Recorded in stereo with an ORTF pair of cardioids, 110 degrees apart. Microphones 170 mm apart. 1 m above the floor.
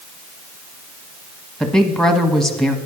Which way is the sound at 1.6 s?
Straight ahead.